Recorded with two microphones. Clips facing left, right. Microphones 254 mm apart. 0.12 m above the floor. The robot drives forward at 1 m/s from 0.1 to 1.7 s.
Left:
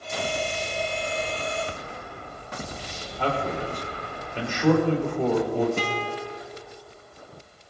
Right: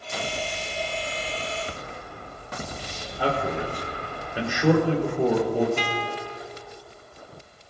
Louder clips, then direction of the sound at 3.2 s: Right 1 dB; 10° right (ahead or behind).